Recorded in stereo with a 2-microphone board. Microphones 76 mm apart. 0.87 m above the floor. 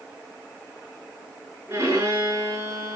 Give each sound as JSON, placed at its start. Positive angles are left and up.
{"t": 1.7, "sound": "a violin", "side_deg": -35, "distance_m": 6.5}